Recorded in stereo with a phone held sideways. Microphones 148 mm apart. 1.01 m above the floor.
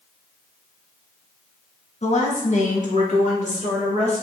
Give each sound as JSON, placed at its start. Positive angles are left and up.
{"t": 2.0, "sound": "a woman speaking", "side_deg": 50, "distance_m": 1.1}